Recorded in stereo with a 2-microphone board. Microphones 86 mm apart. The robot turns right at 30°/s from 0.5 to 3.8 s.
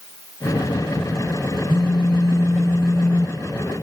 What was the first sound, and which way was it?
A phone buzzing, 120° left.